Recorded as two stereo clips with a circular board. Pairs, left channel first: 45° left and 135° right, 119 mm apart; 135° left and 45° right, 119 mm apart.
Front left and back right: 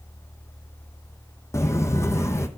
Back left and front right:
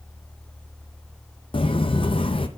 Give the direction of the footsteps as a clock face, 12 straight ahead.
8 o'clock.